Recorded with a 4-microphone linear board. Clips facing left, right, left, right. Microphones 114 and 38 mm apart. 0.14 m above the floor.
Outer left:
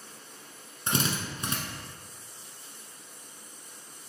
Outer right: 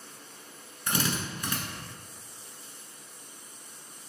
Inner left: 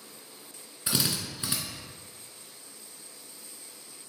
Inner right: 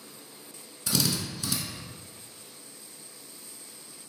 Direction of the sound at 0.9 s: 30° left (ahead or behind).